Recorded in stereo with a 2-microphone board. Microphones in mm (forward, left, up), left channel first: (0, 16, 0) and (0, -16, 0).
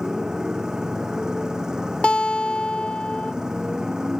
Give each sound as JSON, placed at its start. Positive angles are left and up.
{"t": 0.0, "sound": "a motorcycle", "side_deg": -25}
{"t": 2.0, "sound": "a guitar", "side_deg": 30}